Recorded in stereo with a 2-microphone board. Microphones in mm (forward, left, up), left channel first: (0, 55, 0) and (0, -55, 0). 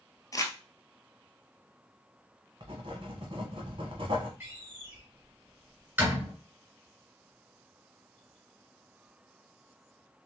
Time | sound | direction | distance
0.3 | crumpling | 30° left (ahead or behind) | 0.9 m
2.6 | writing | 55° right (ahead or behind) | 1.2 m
4.4 | a door slam | 20° right (ahead or behind) | 2 m